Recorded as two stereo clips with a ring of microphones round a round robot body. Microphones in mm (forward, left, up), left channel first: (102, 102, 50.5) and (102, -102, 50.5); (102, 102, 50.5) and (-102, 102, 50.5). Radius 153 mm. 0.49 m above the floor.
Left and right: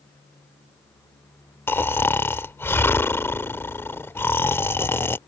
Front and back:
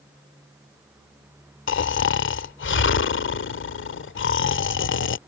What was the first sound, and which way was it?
Snoring, 10° left.